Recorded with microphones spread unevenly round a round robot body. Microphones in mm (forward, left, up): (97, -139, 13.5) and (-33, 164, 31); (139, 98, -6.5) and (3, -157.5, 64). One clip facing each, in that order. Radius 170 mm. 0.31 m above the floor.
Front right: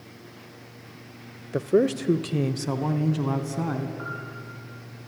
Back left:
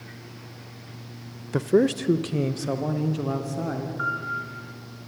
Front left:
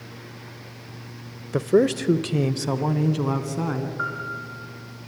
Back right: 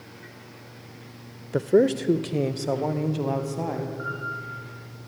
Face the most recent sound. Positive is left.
turn(degrees=65)